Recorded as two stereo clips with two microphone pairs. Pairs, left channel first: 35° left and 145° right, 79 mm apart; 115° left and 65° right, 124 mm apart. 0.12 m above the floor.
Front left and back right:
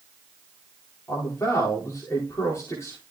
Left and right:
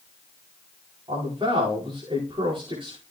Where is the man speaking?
15° right, 10 m.